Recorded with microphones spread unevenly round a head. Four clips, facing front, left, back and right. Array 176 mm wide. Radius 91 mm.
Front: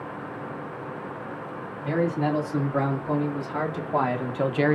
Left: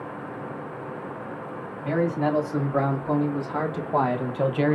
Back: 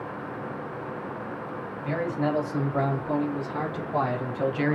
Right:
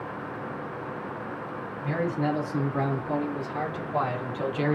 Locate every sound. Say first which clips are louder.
1.8 s a man speaking: left 4 dB, front 3 dB; 75° left, 2.5 m; by 4.8 s 15° left, 0.7 m